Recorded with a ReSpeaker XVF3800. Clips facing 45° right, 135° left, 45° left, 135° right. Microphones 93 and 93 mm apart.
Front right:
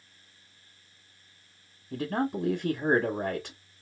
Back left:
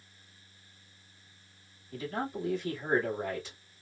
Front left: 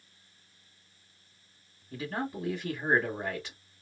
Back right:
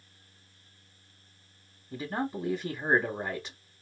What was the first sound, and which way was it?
A man speaking, 55° right.